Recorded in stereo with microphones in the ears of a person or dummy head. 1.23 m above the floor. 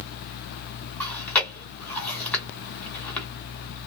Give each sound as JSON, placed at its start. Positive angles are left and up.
{"t": 1.0, "sound": "chewing", "side_deg": 10, "distance_m": 1.5}